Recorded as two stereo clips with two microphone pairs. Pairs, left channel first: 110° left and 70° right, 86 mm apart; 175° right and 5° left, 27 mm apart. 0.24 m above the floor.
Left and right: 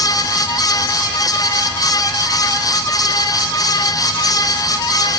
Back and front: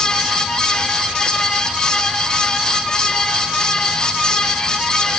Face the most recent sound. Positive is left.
No sound to turn to.